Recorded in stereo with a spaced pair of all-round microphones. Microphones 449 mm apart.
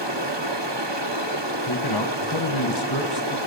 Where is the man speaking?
60° left (ahead or behind), 1.4 m.